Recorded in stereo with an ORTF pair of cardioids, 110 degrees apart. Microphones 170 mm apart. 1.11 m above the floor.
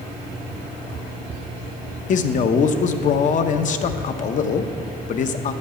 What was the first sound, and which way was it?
A man speaking, 50° left.